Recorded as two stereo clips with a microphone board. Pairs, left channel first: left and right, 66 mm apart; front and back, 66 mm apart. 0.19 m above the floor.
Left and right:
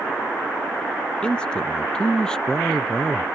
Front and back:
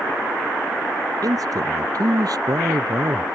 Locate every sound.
1.2 s a man speaking: 165° left; by 3.2 s 170° left